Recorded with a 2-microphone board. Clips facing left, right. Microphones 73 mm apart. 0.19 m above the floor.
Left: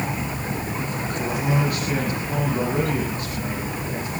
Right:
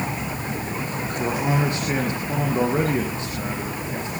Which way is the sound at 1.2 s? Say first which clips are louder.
Right 1 dB; 30° right (ahead or behind).